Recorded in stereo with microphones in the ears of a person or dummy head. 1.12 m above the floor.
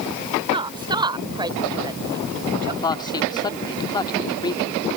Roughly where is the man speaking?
Left.